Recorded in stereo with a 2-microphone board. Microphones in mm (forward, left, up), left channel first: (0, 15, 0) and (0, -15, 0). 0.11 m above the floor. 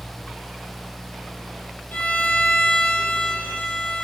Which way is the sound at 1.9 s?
60° left (ahead or behind).